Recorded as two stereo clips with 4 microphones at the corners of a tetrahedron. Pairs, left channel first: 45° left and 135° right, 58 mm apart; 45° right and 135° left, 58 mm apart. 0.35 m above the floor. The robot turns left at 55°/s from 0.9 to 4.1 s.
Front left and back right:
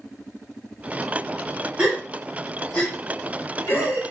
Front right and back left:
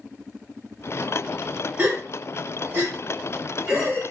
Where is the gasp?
160° left, 1.6 m; by 4.1 s 35° left, 1.6 m.